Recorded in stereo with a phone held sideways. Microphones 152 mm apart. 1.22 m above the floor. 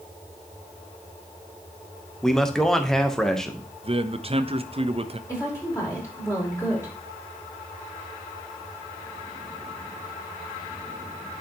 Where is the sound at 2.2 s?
5° left (ahead or behind), 0.9 m.